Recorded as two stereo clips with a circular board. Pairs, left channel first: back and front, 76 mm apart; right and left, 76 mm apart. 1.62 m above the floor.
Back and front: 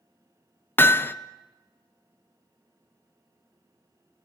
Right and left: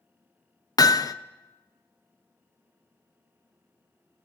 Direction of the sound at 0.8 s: 120° right.